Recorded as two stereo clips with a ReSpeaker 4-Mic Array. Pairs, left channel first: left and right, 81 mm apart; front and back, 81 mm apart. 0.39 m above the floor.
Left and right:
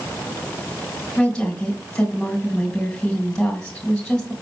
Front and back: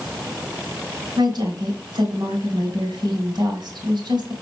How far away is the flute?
I don't hear a flute.